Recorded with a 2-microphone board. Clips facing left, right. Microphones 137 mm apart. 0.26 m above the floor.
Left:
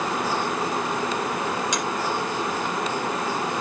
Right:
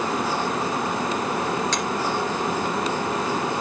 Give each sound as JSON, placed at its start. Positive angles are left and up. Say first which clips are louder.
{"t": 1.7, "sound": "a finger snap", "louder": "right 1 dB", "side_deg": 10, "distance_m": 3.5}